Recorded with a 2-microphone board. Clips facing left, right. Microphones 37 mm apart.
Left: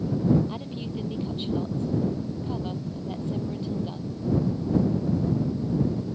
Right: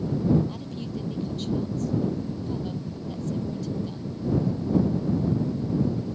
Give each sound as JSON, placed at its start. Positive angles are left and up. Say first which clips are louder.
{"t": 0.5, "sound": "a woman speaking", "louder": "left 1 dB", "side_deg": 25}